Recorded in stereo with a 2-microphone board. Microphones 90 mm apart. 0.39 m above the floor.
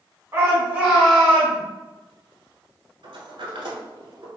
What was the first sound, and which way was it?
A shout, 35° right (ahead or behind).